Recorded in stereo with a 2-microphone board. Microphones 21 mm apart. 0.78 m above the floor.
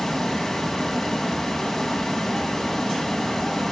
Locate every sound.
0.0 s running water: 20° left (ahead or behind), 3 m